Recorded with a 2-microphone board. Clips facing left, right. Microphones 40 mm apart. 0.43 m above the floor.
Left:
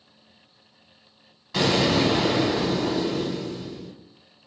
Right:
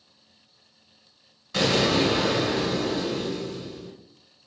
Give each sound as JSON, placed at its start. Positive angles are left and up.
{"t": 1.5, "sound": "an explosion", "side_deg": 10, "distance_m": 1.3}